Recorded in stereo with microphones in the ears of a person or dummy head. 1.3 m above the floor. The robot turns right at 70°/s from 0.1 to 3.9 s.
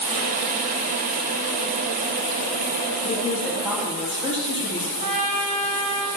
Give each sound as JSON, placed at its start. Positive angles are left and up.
{"t": 3.0, "sound": "a woman speaking", "azimuth_deg": 145, "distance_m": 1.9}
{"t": 5.0, "sound": "a trumpet", "side_deg": -35, "distance_m": 0.6}